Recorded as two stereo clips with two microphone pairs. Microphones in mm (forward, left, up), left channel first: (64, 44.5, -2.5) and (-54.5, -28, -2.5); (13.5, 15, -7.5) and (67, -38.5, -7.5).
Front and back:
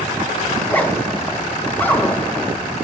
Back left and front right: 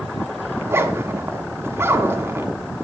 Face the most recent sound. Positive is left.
turn(degrees=-40)